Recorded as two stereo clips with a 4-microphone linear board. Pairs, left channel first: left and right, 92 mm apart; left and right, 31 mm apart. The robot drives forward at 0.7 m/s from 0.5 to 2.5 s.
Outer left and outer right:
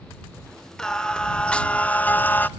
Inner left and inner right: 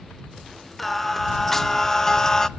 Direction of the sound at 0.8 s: 5° left (ahead or behind).